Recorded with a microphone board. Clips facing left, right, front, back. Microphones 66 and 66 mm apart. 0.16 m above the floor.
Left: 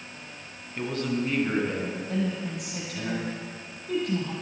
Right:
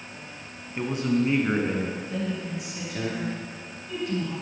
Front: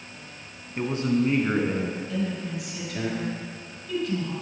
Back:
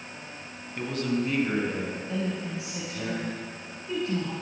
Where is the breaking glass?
I don't hear breaking glass.